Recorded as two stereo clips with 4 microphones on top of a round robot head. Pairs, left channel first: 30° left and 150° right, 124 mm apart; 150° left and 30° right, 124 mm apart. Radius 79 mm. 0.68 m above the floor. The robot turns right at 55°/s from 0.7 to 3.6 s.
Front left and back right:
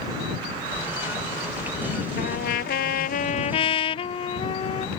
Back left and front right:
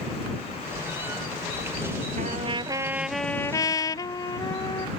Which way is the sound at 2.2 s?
5° left.